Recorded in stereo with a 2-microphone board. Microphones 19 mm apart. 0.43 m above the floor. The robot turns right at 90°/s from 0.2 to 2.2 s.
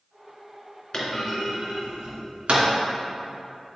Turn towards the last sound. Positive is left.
turn(degrees=-85)